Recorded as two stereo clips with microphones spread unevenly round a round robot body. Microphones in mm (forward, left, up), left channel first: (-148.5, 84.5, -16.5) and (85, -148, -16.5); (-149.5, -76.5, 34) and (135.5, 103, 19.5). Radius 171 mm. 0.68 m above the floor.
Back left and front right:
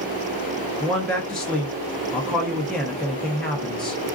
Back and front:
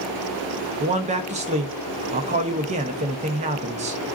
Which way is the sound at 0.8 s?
50° left.